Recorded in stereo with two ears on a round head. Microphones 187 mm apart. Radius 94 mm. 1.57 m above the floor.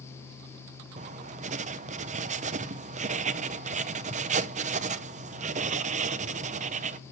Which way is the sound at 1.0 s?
35° right (ahead or behind).